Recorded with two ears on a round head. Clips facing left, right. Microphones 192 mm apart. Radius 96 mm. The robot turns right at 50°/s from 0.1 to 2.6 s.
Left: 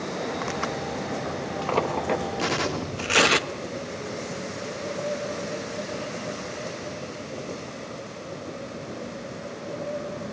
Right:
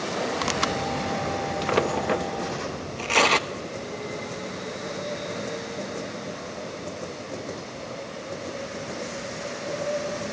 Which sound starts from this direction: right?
Tearing paper, at 0.4 s.